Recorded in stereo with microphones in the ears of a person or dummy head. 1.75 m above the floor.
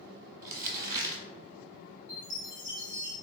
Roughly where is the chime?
Left.